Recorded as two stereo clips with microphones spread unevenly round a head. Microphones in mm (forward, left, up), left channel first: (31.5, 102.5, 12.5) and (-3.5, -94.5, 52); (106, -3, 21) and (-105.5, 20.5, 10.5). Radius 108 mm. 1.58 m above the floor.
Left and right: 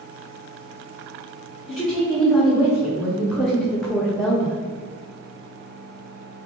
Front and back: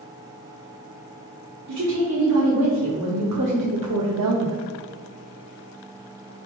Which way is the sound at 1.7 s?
170° left.